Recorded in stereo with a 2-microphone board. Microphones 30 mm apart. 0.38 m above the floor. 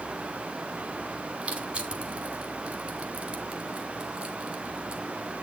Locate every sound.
1.4 s crushing: 30° right (ahead or behind), 2 m